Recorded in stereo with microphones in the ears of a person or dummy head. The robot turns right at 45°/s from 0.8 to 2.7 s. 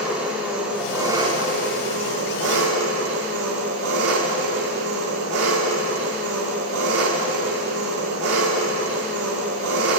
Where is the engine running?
175° right, 3.5 m; by 10.0 s 90° right, 3.5 m.